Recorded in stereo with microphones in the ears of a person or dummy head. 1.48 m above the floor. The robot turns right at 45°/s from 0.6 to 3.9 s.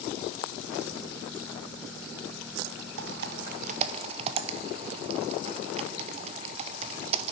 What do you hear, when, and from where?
3.0 s typing on a keyboard: 75° right (ahead or behind), 0.6 m; by 7.3 s 35° right (ahead or behind), 0.6 m